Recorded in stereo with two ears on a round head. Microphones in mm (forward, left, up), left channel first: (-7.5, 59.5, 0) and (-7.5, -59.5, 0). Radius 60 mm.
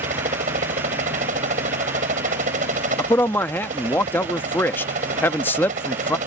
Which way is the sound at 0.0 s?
60° right (ahead or behind).